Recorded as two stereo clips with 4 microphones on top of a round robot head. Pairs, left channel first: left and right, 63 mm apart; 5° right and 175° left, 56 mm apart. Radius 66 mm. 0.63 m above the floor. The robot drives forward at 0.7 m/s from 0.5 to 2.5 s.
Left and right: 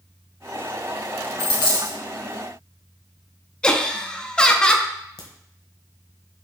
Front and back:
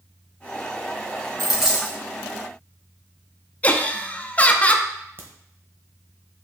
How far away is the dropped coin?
About 1.9 m.